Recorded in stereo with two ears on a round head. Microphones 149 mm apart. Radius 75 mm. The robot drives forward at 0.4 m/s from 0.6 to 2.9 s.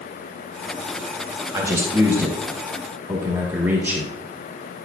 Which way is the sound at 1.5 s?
20° right (ahead or behind).